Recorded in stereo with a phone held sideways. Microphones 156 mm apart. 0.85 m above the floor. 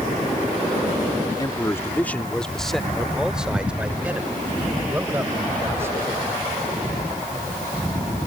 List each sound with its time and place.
1.3 s a man speaking: 30° left (ahead or behind); by 6.0 s 15° right (ahead or behind)